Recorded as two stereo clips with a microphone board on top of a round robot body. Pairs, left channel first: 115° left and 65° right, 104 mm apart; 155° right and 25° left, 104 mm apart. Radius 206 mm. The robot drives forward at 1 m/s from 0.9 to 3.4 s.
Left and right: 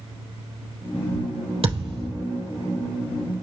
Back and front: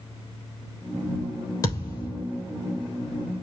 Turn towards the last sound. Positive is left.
turn(degrees=-125)